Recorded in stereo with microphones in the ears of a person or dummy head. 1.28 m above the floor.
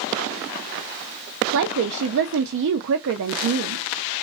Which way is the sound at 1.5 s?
65° right (ahead or behind).